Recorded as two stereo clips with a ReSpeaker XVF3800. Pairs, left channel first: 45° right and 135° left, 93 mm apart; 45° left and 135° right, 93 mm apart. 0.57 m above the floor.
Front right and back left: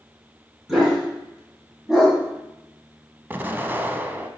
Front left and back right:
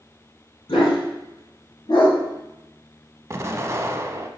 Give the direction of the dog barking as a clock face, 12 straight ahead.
10 o'clock.